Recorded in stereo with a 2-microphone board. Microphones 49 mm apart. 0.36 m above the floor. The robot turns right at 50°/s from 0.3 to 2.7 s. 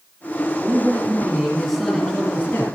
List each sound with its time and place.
0.6 s a man speaking: 50° right, 6 m; by 2.7 s 50° left, 6 m